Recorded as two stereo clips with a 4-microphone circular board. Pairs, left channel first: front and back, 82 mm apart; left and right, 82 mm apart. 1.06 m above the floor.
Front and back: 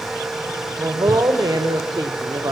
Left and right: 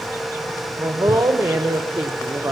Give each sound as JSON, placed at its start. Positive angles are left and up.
{"t": 0.8, "sound": "a woman speaking", "azimuth_deg": -130, "distance_m": 3.5}